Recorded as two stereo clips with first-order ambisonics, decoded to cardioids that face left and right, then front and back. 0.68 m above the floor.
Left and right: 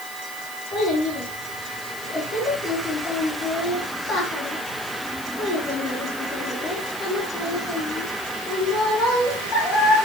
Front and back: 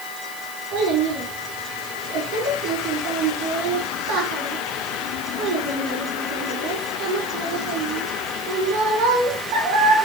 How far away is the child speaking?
About 4 m.